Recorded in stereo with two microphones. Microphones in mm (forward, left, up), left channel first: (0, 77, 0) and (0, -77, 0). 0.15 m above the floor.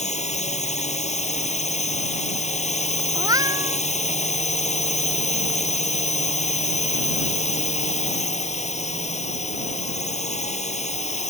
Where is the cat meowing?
20° right (ahead or behind).